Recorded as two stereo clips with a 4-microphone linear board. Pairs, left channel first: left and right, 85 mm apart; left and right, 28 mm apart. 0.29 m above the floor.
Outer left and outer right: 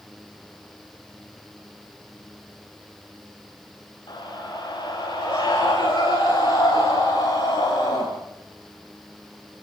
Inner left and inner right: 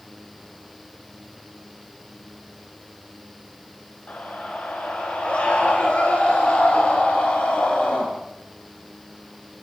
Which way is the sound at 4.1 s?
55° left (ahead or behind).